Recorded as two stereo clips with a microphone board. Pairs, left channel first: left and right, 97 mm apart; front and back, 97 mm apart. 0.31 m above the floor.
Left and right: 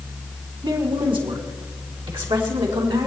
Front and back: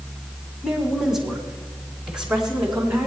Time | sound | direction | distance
0.6 | a woman speaking | 90° right | 2.5 m